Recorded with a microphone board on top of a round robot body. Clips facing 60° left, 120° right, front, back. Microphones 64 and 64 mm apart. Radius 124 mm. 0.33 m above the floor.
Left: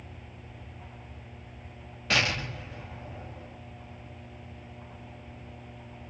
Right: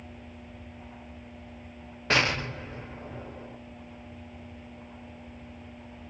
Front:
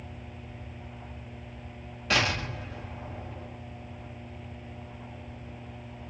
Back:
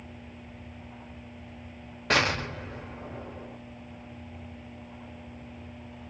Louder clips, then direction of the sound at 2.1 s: Right 2 dB, back 2 dB; 165° right.